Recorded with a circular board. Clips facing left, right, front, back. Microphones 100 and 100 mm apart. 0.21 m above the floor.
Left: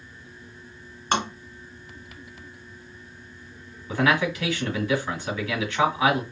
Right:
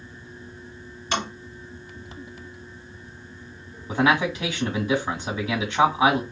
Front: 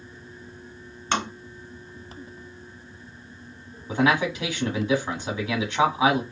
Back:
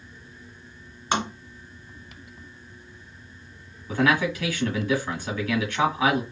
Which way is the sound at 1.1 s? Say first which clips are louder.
Left 3 dB, back 1 dB; 110° left.